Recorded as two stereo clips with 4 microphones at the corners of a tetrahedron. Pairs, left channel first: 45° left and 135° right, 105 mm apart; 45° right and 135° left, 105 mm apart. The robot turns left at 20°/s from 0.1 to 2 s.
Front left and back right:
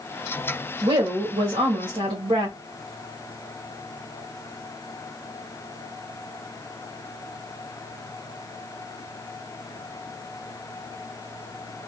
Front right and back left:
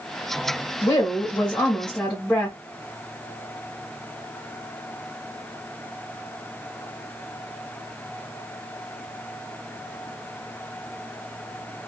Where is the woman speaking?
105° right, 1.4 m; by 2.6 s 125° right, 1.4 m.